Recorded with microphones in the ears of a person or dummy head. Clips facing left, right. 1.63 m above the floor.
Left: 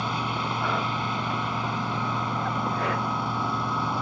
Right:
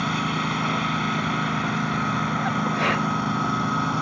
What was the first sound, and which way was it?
A lawn mower, 20° right (ahead or behind).